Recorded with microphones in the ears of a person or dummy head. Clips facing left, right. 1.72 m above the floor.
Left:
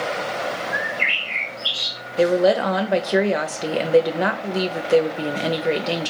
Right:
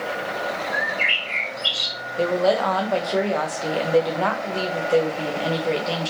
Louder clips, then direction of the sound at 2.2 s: Left 3 dB; 25° left (ahead or behind).